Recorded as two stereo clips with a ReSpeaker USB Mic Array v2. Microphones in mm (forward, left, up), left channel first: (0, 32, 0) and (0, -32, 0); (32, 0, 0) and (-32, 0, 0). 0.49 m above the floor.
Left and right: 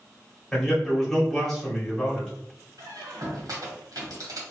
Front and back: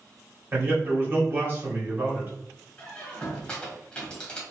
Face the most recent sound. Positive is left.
turn(degrees=-75)